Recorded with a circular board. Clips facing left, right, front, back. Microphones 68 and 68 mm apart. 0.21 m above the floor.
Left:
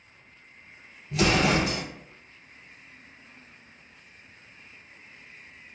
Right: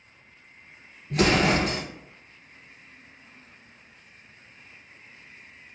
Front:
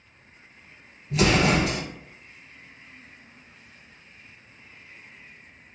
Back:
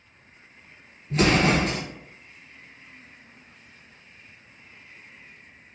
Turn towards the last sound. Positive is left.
turn(degrees=-130)